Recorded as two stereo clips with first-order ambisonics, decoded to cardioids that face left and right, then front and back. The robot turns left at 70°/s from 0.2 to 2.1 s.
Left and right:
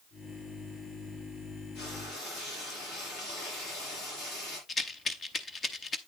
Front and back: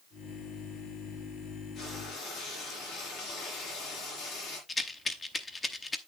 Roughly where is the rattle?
Ahead left.